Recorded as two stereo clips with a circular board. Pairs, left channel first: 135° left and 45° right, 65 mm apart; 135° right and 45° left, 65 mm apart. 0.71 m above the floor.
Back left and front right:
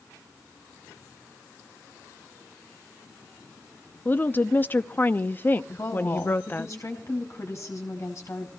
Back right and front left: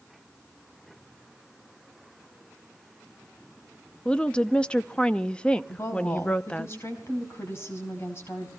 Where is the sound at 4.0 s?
165° left, 0.7 m.